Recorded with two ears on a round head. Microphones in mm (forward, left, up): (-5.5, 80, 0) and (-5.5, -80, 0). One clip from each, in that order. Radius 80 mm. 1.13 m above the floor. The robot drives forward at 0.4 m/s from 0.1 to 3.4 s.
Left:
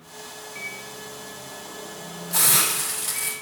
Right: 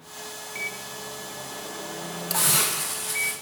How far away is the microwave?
About 0.7 m.